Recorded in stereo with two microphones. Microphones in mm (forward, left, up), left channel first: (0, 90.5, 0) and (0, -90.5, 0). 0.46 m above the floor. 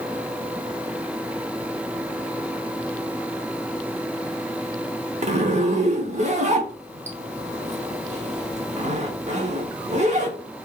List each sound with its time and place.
5.2 s a zipper: 40° right (ahead or behind), 0.7 m